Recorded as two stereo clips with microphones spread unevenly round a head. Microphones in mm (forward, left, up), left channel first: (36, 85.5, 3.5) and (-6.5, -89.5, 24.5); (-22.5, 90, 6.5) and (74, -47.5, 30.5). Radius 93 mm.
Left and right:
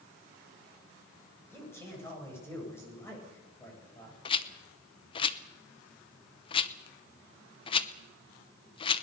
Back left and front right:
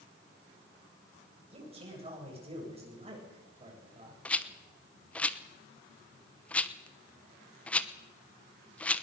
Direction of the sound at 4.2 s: 35° left.